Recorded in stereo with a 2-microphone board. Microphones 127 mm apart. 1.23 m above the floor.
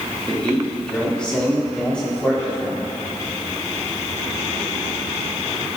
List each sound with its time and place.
0.3 s a man speaking: 10° left (ahead or behind), 2 m